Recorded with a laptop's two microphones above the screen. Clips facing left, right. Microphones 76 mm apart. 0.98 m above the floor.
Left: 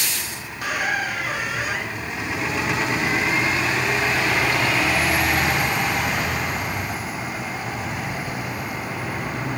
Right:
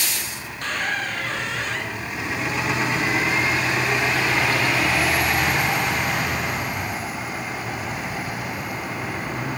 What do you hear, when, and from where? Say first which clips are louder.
0.5 s a squeak: left 2 dB; 10° left (ahead or behind), 0.9 m